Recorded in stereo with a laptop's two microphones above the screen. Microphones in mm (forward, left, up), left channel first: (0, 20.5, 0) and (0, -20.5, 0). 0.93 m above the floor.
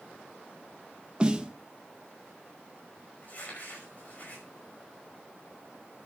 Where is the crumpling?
40° left (ahead or behind), 5.5 m.